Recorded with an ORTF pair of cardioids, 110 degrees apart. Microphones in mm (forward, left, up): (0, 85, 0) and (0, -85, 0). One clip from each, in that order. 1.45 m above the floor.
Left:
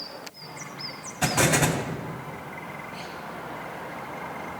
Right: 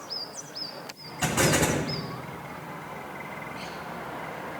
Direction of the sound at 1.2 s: 25° left.